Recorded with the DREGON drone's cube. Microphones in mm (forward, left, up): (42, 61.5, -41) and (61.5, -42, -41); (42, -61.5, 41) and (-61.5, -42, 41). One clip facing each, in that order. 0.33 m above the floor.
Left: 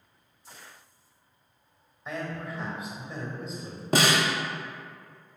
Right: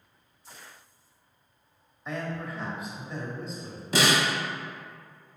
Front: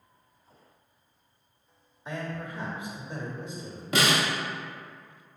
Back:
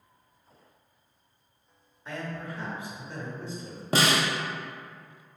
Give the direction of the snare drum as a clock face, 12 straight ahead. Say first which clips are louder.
Left 1 dB, back 1 dB; 8 o'clock.